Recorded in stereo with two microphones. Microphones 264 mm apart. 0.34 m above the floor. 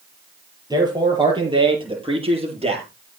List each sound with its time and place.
0.7 s a man speaking: 15° right (ahead or behind), 7 m; by 2.9 s 25° right (ahead or behind), 7.5 m